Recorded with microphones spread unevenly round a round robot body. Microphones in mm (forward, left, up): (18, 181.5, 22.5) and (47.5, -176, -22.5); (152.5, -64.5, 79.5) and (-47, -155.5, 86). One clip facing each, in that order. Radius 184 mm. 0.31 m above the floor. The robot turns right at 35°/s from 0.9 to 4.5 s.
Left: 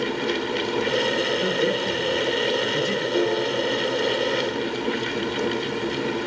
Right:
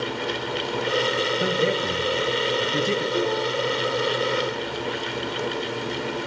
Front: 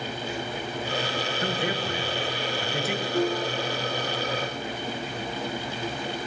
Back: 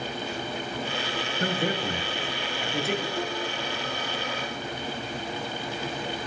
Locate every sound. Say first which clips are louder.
1.4 s a man speaking: even, back 3 dB; 115° right, 6 m; by 3.0 s 60° right, 6 m
3.1 s a piano: left 2 dB, front 6 dB; 5° left, 5.5 m; by 3.8 s 30° left, 5.5 m